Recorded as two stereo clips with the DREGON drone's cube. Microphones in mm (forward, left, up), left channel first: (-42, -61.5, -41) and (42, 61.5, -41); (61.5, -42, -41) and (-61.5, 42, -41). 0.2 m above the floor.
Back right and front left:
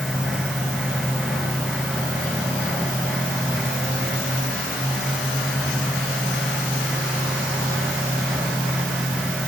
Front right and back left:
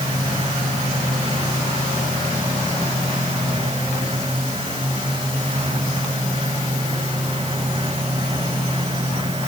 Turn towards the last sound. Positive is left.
No sound to turn to.